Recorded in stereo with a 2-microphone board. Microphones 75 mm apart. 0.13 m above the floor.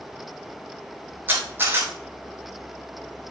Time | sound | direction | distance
1.3 | a camera shutter | 30° right (ahead or behind) | 3.5 m